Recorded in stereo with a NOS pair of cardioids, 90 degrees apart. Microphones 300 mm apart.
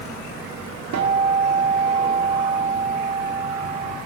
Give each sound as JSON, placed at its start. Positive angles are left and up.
{"t": 0.9, "sound": "a guitar", "azimuth_deg": -60, "distance_m": 2.5}